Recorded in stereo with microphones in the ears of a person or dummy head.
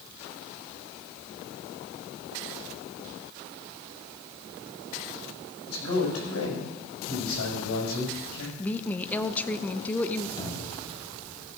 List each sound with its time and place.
5.7 s a man speaking: 85° left, 5.5 m
8.6 s a woman speaking: 10° left (ahead or behind), 0.6 m
10.4 s a cupboard door: 20° left (ahead or behind), 3.5 m